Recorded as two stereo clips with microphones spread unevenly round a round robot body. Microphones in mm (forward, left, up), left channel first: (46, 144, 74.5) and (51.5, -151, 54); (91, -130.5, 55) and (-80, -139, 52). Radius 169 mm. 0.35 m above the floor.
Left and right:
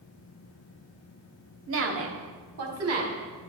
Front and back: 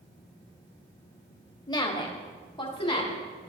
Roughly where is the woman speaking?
Ahead right.